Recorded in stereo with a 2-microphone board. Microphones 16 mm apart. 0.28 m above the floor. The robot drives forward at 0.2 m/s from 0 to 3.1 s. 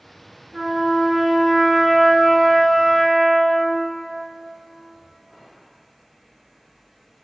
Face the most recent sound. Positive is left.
turn(degrees=-35)  # may be behind; listen again after turning